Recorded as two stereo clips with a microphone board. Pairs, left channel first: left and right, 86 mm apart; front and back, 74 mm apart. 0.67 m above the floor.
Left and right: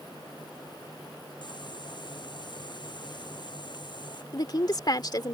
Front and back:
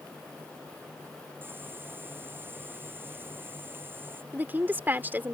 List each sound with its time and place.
1.4 s boiling: 120° left
4.3 s a woman speaking: 120° left